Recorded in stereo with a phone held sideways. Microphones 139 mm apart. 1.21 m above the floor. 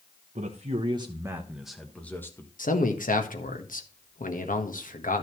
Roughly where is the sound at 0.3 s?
Right.